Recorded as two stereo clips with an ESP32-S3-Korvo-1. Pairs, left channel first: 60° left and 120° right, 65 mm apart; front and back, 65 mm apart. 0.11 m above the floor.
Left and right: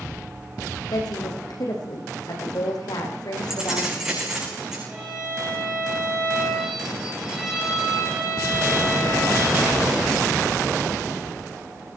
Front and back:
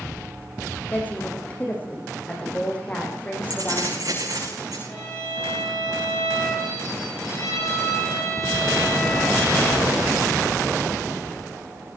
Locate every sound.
0.9 s a woman speaking: 70° left, 6 m
3.5 s keys jangling: 160° left, 7 m
4.9 s a violin: 45° right, 8.5 m